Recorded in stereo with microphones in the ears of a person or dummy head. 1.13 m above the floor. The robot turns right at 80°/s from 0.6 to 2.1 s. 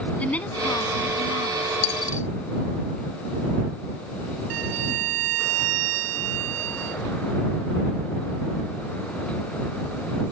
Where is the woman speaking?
10° left; by 1.7 s 100° left.